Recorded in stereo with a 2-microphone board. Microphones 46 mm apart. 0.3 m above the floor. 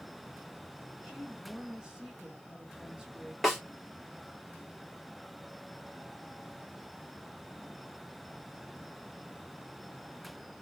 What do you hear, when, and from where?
1.0 s a woman speaking: 15° right (ahead or behind), 1.1 m
3.4 s a snare drum: centre (ahead or behind), 2.5 m